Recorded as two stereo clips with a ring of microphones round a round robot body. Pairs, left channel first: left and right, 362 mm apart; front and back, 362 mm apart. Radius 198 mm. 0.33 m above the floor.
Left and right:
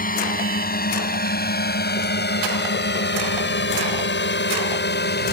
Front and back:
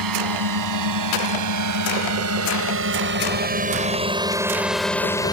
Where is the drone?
155° left; by 5.3 s 65° left.